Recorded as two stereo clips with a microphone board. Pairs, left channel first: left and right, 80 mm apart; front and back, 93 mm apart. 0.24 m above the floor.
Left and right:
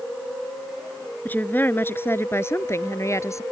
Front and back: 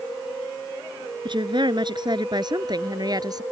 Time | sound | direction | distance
1.2 | a woman speaking | 155° left | ?